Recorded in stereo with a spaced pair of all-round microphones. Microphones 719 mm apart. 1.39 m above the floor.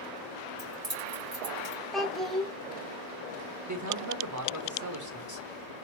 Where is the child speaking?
Centre (ahead or behind), 0.9 m.